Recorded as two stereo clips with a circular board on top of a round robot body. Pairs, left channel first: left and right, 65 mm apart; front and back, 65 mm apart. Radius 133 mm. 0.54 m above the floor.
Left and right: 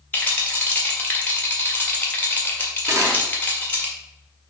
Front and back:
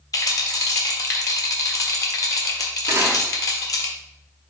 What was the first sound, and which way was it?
A rattle, 25° left.